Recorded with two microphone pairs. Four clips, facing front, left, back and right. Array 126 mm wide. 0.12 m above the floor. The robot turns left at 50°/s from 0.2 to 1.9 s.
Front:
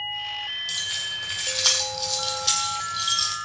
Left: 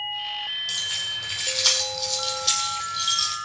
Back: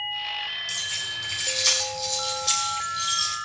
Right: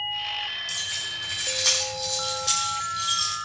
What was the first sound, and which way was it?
Keys jangling, 65° left.